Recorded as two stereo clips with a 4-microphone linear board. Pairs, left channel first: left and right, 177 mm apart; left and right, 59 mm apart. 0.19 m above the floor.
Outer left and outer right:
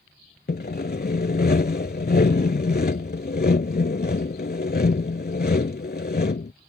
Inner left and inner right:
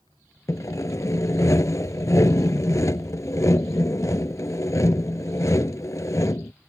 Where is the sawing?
65° left (ahead or behind).